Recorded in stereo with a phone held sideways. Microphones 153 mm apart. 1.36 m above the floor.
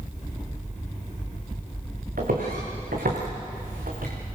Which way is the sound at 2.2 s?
75° right (ahead or behind).